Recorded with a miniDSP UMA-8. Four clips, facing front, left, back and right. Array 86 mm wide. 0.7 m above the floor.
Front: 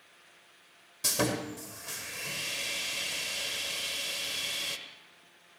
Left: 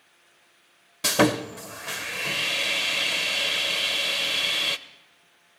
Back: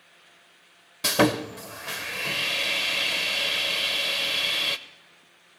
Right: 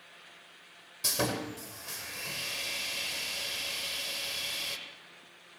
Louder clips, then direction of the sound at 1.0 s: Left 11 dB, back 9 dB; 135° left.